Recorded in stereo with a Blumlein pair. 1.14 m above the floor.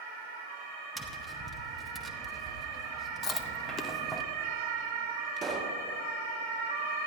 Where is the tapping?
10° right, 0.9 m.